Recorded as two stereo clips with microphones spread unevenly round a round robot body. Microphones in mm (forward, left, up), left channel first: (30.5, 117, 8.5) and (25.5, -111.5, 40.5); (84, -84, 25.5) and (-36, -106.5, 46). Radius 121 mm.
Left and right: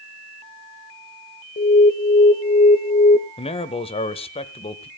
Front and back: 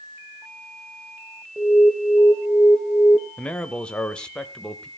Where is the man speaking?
70° left, 1.0 m.